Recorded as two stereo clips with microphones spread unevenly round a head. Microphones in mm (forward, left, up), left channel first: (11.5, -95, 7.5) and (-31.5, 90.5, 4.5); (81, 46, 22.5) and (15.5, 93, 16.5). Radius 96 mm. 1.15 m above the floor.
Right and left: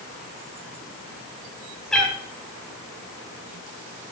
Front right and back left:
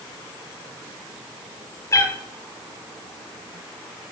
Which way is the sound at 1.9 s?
10° left.